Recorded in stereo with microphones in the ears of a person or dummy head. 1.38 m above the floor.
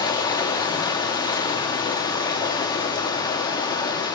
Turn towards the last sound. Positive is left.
turn(degrees=20)  # may be behind; listen again after turning